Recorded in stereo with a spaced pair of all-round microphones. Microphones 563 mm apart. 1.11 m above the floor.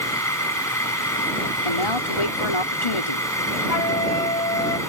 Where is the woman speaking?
60° left (ahead or behind).